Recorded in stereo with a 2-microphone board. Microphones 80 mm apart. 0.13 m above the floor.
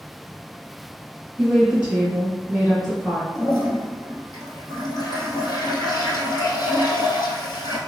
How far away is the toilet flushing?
About 1.1 m.